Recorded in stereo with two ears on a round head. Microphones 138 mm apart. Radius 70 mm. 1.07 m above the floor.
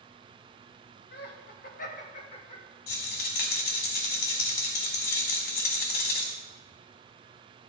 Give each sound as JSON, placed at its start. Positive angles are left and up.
{"t": 1.1, "sound": "laughter", "side_deg": 75, "distance_m": 1.8}
{"t": 2.9, "sound": "a rattle", "side_deg": 60, "distance_m": 3.0}